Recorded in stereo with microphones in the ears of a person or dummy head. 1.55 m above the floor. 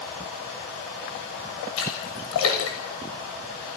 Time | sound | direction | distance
1.8 | a splash | 80° left | 6.5 m